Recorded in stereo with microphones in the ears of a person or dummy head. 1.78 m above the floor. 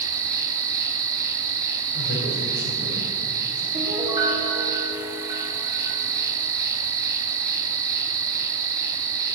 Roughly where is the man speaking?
Left.